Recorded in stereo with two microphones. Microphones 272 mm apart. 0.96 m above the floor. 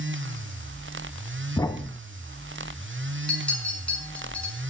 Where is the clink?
5° left (ahead or behind), 6 m.